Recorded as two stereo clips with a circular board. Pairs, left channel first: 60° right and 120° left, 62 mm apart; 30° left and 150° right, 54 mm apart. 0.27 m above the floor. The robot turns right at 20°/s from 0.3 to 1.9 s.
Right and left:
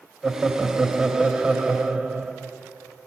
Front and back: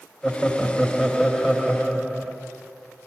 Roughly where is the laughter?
Behind left.